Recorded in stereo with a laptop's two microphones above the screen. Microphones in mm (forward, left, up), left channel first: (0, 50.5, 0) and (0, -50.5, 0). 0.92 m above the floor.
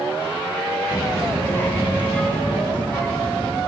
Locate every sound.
0.9 s a child speaking: 45° left (ahead or behind), 0.8 m; by 3.6 s 10° left (ahead or behind), 4.5 m